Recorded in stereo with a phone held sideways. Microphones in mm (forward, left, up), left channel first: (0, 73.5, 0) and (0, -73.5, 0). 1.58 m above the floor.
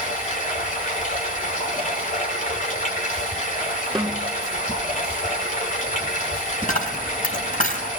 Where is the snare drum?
Centre (ahead or behind), 2.5 m.